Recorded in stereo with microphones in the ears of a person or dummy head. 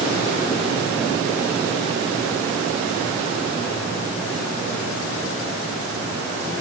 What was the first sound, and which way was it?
Only background noise.